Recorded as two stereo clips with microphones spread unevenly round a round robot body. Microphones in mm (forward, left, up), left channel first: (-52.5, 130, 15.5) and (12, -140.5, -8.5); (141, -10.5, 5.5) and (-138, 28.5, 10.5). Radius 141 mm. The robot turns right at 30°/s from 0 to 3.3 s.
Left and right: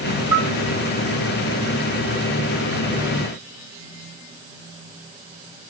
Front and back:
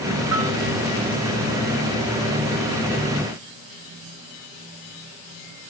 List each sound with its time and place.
0.3 s a bell: 10° left, 1.6 m; by 0.6 s 15° left, 1.6 m